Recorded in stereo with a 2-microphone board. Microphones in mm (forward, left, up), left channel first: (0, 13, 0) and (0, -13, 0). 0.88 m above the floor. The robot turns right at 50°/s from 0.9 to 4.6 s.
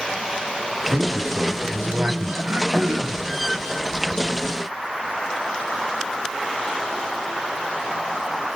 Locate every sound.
0.9 s a man speaking: 145° right, 7.5 m; by 2.3 s 75° right, 7.5 m
2.4 s throat clearing: 85° right, 4.5 m; by 3.2 s 45° right, 4.5 m